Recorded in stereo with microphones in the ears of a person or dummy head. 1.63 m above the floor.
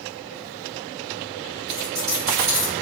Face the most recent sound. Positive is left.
turn(degrees=-30)  # may be behind; listen again after turning